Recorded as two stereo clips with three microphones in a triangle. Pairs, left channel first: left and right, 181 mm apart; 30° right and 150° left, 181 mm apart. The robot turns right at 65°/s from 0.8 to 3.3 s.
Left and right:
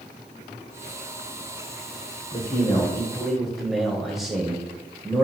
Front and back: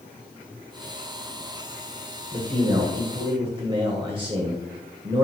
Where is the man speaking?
115° left, 1.5 m; by 5.2 s straight behind, 1.5 m.